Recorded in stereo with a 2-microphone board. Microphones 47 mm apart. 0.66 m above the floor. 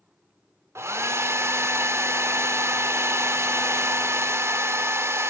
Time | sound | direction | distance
0.8 | a hair dryer | 70° right (ahead or behind) | 0.6 m